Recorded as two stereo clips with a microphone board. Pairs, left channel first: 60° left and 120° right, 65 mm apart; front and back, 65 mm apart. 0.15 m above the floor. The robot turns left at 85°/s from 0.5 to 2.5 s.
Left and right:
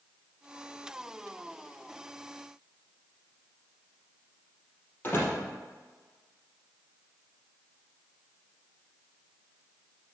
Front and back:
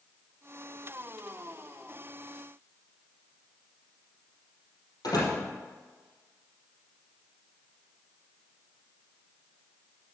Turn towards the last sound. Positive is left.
turn(degrees=0)